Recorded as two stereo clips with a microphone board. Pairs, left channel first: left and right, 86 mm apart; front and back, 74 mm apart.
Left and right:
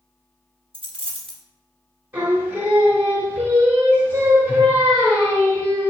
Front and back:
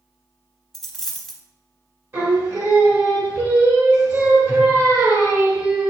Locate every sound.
0.7 s a dropped coin: 90° right, 0.6 m
2.1 s singing: 150° right, 1.2 m